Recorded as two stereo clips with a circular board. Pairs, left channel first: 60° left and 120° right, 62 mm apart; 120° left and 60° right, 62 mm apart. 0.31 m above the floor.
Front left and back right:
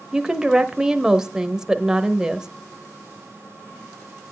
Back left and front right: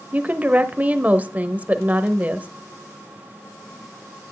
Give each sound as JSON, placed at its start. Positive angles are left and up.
{"t": 0.1, "sound": "a woman speaking", "azimuth_deg": -55, "distance_m": 0.9}